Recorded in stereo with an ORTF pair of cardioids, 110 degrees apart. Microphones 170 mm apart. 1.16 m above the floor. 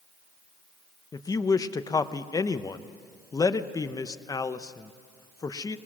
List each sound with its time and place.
1.1 s a woman speaking: 20° left, 0.8 m